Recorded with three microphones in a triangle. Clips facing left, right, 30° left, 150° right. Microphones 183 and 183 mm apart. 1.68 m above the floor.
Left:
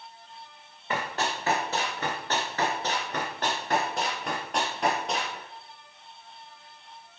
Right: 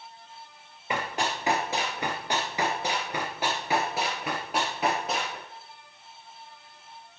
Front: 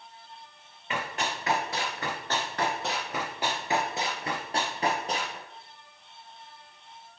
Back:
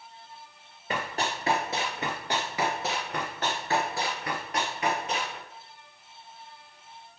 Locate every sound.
0.9 s running footsteps: 160° right, 2 m; by 5.4 s 5° right, 2.5 m